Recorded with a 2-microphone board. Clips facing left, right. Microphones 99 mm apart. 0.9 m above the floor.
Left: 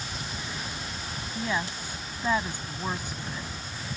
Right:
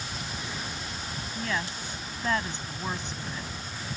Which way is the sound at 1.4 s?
15° left (ahead or behind).